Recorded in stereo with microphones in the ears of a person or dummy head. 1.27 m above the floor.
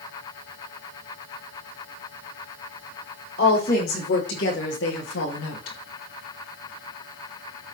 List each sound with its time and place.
3.4 s a woman speaking: 50° left (ahead or behind), 4.5 m; by 5.8 s 80° left, 2.0 m